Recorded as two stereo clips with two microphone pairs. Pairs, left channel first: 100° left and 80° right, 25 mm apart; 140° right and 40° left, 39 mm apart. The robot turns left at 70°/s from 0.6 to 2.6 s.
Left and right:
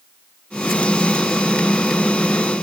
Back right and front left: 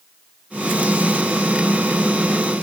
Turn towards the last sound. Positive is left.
No sound to turn to.